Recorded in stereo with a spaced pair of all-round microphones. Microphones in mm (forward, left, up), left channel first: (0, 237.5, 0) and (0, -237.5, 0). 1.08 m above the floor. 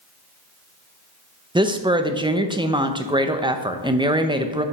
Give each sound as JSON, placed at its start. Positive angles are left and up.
{"t": 1.6, "sound": "a woman speaking", "side_deg": -10, "distance_m": 0.6}